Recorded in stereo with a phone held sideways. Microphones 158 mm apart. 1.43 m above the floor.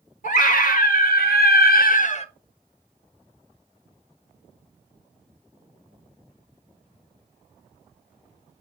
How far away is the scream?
About 2 m.